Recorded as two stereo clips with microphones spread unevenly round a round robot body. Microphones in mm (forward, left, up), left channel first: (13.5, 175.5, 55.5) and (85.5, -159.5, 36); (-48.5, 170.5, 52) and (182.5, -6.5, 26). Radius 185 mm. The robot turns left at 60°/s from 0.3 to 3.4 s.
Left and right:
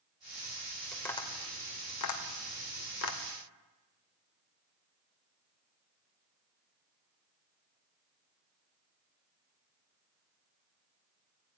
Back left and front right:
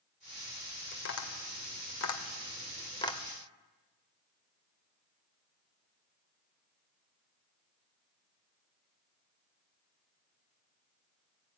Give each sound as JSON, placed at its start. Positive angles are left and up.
{"t": 0.9, "sound": "tapping", "azimuth_deg": -165, "distance_m": 2.5}